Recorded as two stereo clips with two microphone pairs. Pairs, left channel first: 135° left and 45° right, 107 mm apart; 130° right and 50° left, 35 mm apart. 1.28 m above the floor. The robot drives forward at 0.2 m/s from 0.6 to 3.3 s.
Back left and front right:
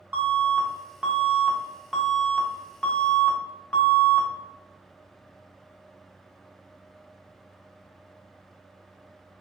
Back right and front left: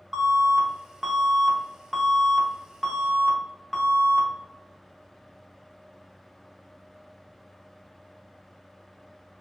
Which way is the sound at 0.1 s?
15° right.